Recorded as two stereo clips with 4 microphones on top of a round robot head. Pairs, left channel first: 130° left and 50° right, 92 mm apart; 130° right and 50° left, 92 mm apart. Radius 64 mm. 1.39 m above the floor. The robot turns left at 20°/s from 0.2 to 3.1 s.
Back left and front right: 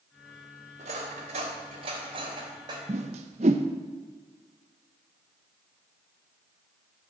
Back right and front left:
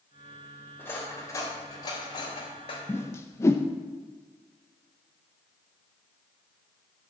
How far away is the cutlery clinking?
About 3.5 m.